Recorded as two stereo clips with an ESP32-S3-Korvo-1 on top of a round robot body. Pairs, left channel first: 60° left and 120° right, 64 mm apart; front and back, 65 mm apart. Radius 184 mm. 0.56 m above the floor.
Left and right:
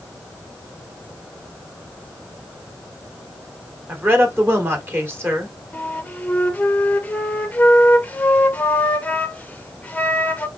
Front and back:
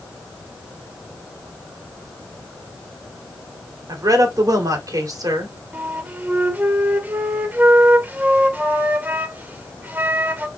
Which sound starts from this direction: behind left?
A flute, at 5.7 s.